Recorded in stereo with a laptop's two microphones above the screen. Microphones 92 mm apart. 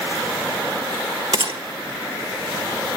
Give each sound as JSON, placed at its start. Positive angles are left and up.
{"t": 1.3, "sound": "a gunshot", "side_deg": -70, "distance_m": 1.4}